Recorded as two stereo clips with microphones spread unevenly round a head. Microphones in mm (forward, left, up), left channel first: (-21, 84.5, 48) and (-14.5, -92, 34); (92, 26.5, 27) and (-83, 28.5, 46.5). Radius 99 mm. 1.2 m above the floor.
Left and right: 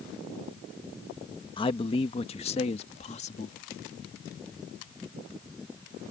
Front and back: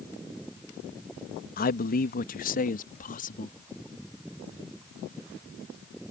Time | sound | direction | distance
1.6 | a man speaking | 30° left | ?